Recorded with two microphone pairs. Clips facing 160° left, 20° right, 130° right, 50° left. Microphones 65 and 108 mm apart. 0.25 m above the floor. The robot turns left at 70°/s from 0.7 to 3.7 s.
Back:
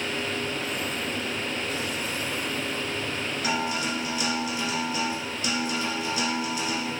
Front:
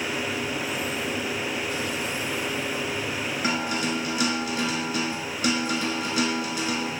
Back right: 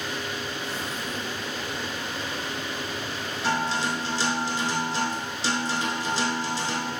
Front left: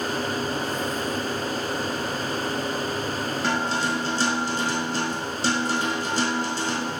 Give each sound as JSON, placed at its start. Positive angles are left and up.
{"t": 3.4, "sound": "a guitar", "azimuth_deg": 25, "distance_m": 0.6}